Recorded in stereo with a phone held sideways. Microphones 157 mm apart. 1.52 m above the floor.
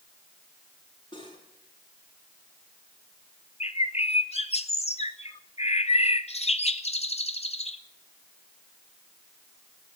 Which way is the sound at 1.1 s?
30° left (ahead or behind).